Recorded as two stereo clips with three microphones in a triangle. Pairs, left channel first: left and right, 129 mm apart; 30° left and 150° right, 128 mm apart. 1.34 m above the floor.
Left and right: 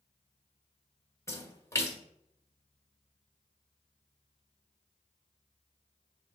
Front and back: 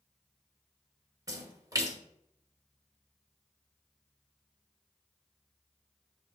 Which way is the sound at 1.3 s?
155° left.